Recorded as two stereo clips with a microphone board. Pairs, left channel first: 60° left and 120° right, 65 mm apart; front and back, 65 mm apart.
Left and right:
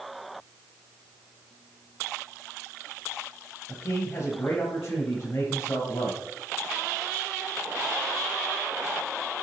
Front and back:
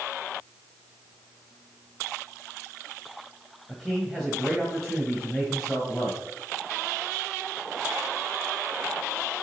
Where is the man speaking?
80° left, 1.6 m.